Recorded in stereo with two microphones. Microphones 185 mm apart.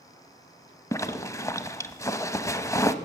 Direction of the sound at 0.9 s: 15° left (ahead or behind).